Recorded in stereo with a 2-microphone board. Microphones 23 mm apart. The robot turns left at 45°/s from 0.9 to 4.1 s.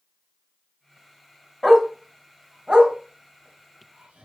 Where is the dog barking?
15° left (ahead or behind), 0.8 m; by 4.3 s 80° right, 0.8 m.